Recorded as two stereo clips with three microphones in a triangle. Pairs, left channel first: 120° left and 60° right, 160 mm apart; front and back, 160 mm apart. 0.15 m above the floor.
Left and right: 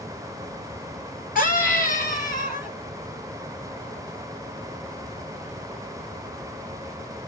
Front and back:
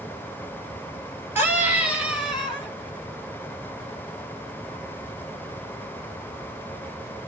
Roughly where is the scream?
Left.